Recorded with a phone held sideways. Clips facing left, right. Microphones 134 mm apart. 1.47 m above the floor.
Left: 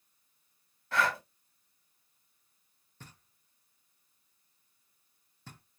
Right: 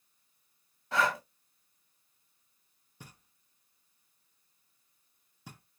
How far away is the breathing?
About 1.3 m.